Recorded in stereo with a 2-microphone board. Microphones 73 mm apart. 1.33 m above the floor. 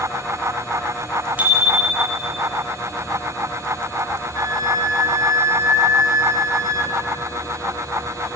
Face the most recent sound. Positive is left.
turn(degrees=-50)  # may be behind; listen again after turning